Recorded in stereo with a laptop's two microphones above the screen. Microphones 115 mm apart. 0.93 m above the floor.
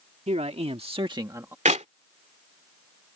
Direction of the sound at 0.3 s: 70° right (ahead or behind).